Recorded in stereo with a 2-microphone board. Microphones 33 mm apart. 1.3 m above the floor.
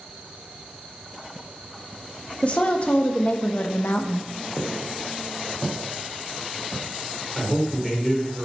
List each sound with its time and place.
2.4 s a woman speaking: 45° left (ahead or behind), 1.6 m; by 4.3 s 75° left (ahead or behind), 0.9 m
4.6 s footsteps: centre (ahead or behind), 3.5 m; by 7.9 s 40° left (ahead or behind), 2 m
7.3 s a man speaking: 10° left (ahead or behind), 4 m